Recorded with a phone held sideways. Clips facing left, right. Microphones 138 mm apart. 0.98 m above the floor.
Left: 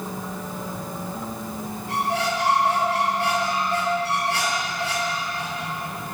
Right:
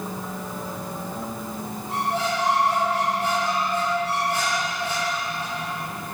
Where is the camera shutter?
I don't hear a camera shutter.